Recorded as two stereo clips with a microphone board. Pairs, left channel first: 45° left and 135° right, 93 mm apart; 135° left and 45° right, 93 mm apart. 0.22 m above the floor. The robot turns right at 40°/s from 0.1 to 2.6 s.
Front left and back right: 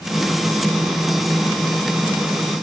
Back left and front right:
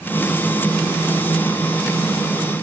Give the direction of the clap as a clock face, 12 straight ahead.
I don't hear a clap.